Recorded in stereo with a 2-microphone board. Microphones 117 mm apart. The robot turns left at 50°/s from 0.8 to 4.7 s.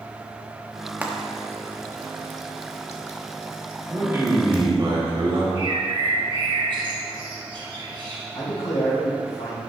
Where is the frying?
15° right (ahead or behind), 0.9 m; by 4.6 s 10° left (ahead or behind), 0.9 m.